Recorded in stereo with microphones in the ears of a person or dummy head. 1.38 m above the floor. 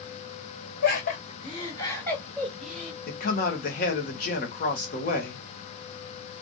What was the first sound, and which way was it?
Laughter, 60° left (ahead or behind).